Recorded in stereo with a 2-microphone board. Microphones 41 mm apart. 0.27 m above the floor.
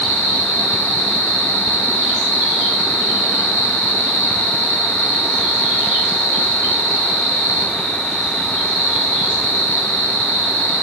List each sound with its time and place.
0.0 s an insect: 45° right (ahead or behind), 1.7 m